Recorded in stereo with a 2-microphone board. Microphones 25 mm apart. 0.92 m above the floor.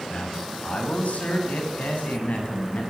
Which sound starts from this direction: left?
A man speaking, at 0.1 s.